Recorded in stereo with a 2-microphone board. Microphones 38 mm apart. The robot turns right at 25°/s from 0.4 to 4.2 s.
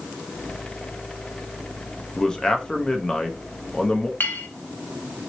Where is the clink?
60° left (ahead or behind), 0.6 m.